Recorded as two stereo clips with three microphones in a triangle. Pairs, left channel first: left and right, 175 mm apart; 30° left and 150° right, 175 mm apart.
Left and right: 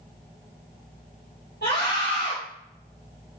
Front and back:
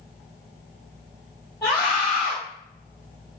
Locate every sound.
1.6 s a scream: 105° left, 3.5 m